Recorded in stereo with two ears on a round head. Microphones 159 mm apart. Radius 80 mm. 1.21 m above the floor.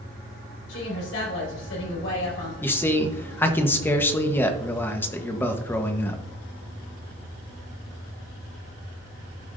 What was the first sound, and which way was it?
A woman speaking, 85° left.